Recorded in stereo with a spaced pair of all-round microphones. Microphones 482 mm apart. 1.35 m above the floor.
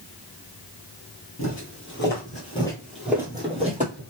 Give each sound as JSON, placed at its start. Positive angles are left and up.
{"t": 1.4, "sound": "footsteps", "side_deg": 35, "distance_m": 1.6}